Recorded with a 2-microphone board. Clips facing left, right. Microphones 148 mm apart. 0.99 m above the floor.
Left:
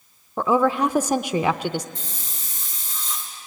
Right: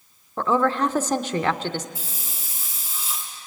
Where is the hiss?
10° right (ahead or behind), 4 m.